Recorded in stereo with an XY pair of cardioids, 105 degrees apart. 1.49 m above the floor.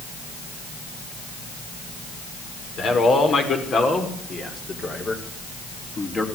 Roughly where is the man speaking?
Ahead left.